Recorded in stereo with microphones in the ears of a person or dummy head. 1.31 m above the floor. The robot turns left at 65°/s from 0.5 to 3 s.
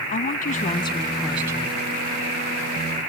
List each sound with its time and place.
0.1 s a woman speaking: 50° left; by 1.8 s 35° right